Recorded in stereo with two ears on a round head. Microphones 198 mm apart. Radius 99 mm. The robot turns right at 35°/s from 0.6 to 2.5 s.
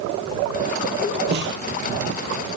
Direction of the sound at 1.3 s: 50° right (ahead or behind).